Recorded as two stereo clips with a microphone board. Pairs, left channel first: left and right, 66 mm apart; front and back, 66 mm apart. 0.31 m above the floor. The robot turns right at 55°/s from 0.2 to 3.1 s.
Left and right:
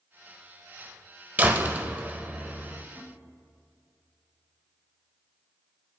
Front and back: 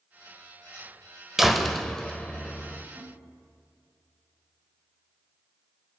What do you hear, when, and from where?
1.4 s a door slam: 100° right, 0.8 m; by 2.9 s 20° right, 0.8 m
3.0 s a snare drum: 155° right, 5.5 m; by 3.2 s 145° right, 5.5 m